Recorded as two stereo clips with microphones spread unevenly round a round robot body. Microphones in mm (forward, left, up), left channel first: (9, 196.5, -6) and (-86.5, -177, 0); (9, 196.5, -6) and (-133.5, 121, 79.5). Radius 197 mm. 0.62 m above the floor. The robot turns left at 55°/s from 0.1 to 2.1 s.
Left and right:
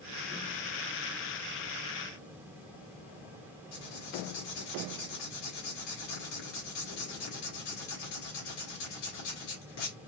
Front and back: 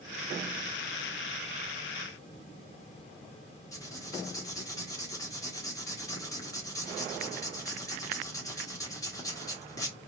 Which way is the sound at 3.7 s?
80° left.